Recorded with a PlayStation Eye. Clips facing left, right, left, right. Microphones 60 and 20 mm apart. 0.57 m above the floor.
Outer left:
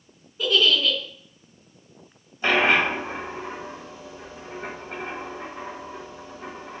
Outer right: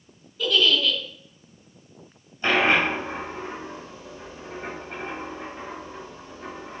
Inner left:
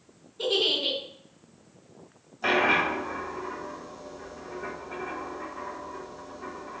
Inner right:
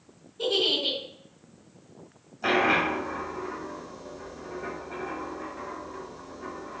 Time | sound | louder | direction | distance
0.4 | a giggle | outer left 1 dB, even | 20° left (ahead or behind) | 4.5 m
2.4 | a dropped coin | outer left 1 dB, even | 15° left (ahead or behind) | 4.5 m